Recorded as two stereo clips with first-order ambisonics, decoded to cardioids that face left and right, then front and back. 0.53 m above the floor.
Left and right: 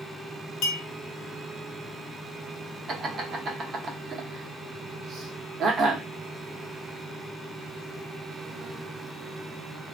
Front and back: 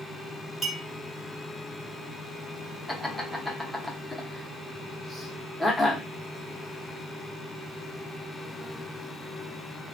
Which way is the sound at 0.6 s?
100° left.